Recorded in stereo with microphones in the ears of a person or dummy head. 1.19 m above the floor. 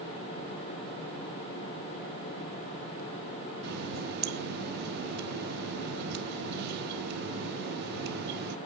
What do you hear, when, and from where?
3.6 s a running tap: 60° right (ahead or behind), 1.2 m